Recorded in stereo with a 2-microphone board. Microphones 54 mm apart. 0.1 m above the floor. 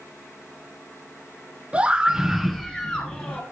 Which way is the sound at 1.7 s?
25° right (ahead or behind).